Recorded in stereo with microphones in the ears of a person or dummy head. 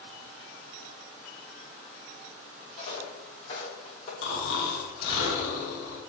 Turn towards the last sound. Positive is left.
turn(degrees=85)